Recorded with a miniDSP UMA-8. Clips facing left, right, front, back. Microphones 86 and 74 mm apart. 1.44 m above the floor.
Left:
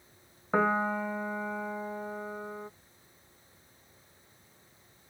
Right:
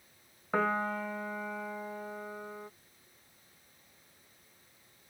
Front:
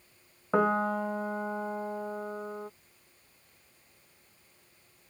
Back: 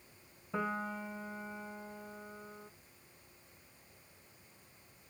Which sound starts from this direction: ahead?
A piano, at 0.5 s.